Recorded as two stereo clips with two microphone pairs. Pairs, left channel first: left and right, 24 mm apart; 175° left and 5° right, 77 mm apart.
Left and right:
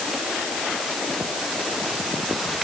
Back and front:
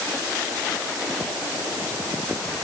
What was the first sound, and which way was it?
Only background noise.